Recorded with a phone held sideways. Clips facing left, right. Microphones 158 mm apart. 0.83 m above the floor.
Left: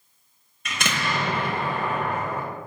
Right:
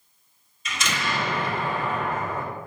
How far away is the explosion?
About 1.1 m.